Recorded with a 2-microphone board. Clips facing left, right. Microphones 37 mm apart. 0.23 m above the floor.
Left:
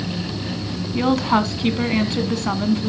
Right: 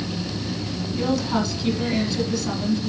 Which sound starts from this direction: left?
A woman speaking, at 0.9 s.